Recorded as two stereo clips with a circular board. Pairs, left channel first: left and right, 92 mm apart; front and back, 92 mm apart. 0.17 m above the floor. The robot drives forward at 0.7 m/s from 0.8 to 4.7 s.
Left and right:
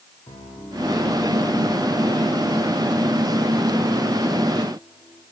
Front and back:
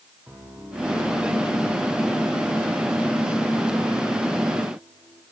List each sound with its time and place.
0.3 s a piano: 110° left, 8.5 m; by 5.2 s 125° left, 9.5 m